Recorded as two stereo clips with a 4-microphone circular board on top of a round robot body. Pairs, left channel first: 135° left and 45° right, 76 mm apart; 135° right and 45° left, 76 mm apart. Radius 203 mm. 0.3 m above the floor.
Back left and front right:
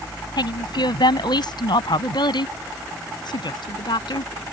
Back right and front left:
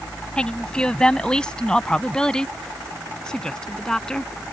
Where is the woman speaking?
145° left.